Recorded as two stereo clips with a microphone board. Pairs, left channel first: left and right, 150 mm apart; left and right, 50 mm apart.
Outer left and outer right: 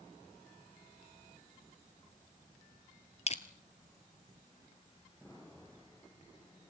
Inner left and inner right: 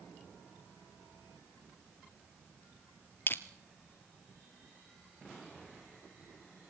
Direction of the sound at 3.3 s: 45° left (ahead or behind).